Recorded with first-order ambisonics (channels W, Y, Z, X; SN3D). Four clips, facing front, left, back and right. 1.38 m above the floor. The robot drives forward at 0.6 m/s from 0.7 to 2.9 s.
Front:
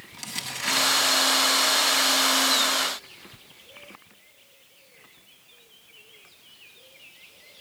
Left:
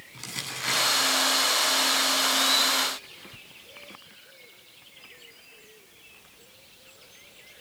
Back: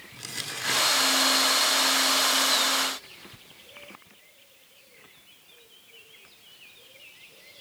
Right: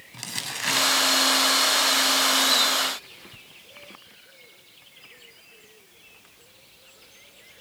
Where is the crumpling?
70° right, 7.5 m.